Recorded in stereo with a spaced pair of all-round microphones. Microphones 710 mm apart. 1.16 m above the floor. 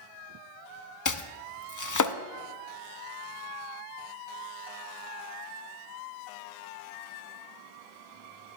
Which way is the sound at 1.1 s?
30° left (ahead or behind).